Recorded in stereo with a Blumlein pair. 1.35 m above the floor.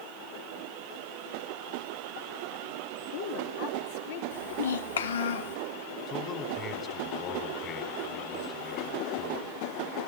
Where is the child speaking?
65° left, 1.4 m.